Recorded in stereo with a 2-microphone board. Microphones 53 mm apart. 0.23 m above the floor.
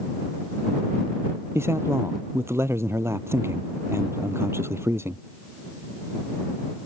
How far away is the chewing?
No chewing in this recording.